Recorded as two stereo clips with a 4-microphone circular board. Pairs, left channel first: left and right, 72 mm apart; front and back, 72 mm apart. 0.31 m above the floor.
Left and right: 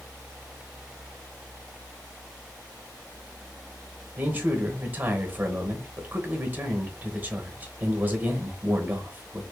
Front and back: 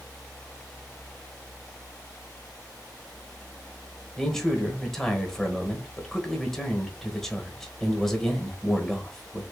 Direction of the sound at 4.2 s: 75° right.